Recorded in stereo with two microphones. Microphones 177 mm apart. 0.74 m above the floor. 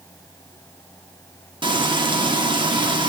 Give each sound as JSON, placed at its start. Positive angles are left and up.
{"t": 1.6, "sound": "frying", "side_deg": -25, "distance_m": 1.8}